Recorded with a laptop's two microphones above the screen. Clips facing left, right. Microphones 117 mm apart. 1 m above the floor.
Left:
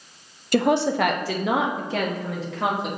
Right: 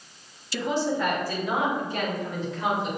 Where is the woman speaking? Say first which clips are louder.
Left 6 dB; 50° left (ahead or behind), 0.7 m; by 2.9 s 80° left, 2.0 m.